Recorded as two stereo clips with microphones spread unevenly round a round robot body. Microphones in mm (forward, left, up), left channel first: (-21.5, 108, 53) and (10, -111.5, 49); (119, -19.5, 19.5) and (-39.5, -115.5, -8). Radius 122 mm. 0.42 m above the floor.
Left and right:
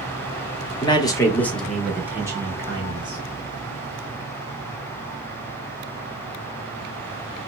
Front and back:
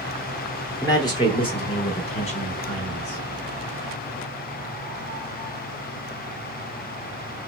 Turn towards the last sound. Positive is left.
turn(degrees=-25)